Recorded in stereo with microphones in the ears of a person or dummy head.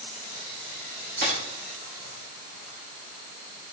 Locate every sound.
1.2 s a dropped coin: 50° right (ahead or behind), 2.5 m